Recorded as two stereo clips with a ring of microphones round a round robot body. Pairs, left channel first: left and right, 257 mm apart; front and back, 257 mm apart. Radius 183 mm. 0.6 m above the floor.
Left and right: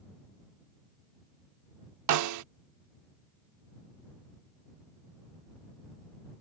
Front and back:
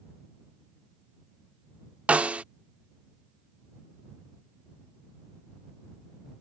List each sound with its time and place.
2.1 s a snare drum: 95° right